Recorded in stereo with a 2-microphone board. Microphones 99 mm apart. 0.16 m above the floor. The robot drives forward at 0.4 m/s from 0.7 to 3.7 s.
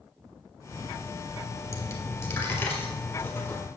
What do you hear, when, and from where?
1.7 s a dropped coin: 35° left (ahead or behind), 1.3 m; by 3.6 s 20° left (ahead or behind), 1.9 m